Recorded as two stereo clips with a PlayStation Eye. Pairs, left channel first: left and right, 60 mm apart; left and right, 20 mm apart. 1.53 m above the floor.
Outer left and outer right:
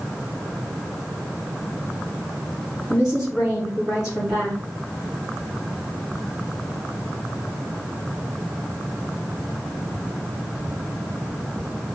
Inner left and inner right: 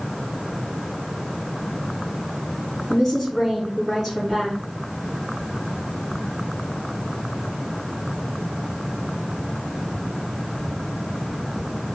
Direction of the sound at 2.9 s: 10° right (ahead or behind).